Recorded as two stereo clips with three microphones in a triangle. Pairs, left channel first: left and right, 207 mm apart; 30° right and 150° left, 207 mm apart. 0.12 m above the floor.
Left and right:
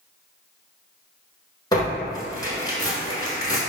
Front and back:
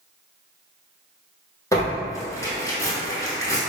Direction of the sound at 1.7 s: 35° left.